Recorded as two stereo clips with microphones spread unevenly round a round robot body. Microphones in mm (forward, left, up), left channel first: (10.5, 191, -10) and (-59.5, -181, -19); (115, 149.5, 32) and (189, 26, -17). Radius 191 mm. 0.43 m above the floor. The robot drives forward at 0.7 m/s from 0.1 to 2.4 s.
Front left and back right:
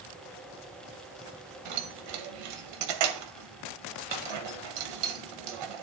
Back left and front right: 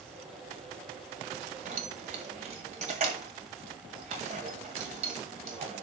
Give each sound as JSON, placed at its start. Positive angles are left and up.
{"t": 1.6, "sound": "keys jangling", "azimuth_deg": -70, "distance_m": 1.9}